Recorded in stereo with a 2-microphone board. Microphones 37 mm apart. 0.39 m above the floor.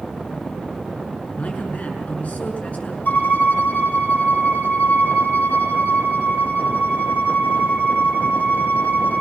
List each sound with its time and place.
1.4 s a man speaking: 45° left (ahead or behind), 6 m
3.0 s a violin: 55° left (ahead or behind), 6.5 m